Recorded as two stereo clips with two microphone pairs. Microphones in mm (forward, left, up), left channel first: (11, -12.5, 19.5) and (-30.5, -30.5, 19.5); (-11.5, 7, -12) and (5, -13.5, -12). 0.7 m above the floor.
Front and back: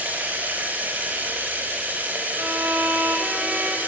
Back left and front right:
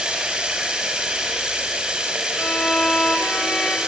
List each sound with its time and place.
0.0 s running water: 105° right, 4.5 m
2.4 s a violin: 150° left, 3 m